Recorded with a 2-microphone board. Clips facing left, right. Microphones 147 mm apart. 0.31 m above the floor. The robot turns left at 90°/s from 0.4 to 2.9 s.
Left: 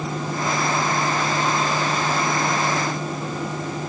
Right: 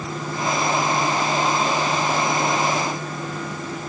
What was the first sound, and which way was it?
Only background noise.